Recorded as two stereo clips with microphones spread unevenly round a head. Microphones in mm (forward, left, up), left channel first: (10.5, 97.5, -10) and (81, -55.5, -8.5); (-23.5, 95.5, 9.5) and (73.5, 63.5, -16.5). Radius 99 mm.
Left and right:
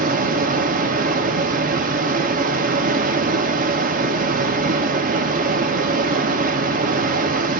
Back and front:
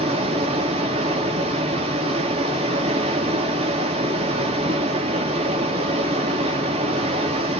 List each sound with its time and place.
0.0 s running water: 55° right, 0.8 m